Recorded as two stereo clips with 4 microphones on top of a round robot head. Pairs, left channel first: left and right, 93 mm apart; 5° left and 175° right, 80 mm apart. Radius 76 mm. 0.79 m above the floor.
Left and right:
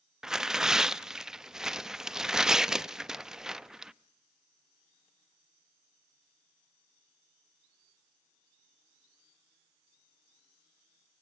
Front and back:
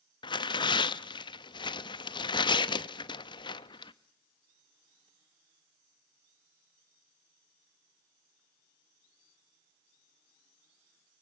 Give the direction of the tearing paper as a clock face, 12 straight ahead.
12 o'clock.